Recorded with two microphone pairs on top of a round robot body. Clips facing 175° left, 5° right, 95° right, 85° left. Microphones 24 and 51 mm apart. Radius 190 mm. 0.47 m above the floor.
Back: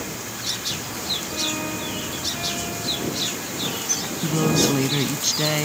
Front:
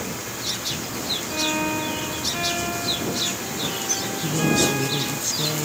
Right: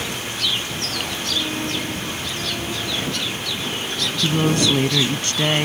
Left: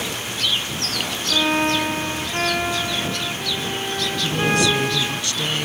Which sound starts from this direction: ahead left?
A violin, at 1.3 s.